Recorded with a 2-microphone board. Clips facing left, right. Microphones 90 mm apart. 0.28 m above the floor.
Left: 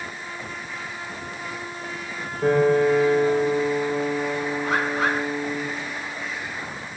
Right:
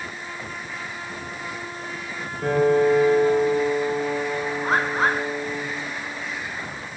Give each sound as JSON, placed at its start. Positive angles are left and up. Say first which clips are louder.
{"t": 2.4, "sound": "a piano", "louder": "even", "side_deg": 10, "distance_m": 4.5}
{"t": 4.6, "sound": "a bird", "louder": "right 3 dB", "side_deg": -35, "distance_m": 1.9}